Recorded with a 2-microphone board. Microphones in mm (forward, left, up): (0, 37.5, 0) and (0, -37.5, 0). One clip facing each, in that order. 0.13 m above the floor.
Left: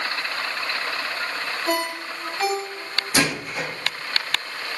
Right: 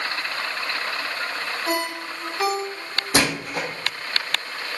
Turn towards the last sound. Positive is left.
turn(degrees=-70)  # may be behind; listen again after turning